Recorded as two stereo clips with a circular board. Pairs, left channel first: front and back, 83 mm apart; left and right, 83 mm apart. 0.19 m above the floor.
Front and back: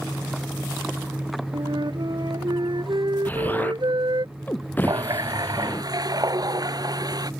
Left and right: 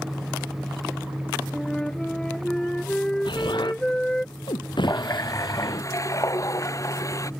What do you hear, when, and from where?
1.5 s a flute: 170° left
3.2 s an explosion: 70° left
4.8 s a running tap: 140° left